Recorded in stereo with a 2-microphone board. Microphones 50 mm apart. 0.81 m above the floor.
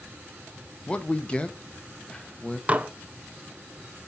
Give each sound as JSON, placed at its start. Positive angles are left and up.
{"t": 0.9, "sound": "a man speaking", "side_deg": 20, "distance_m": 0.6}
{"t": 2.7, "sound": "dishes clattering", "side_deg": -30, "distance_m": 0.5}